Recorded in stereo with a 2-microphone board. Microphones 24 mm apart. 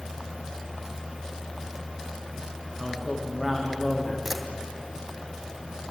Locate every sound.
2.8 s a man speaking: 20° right (ahead or behind), 10 m
4.2 s a camera shutter: 10° right (ahead or behind), 2 m